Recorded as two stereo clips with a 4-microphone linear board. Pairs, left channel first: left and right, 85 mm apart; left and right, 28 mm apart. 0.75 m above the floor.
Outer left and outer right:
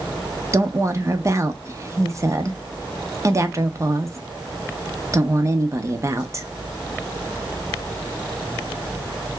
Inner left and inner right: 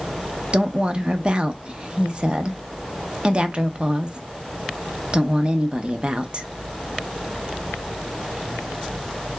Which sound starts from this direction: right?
A woman speaking, at 0.5 s.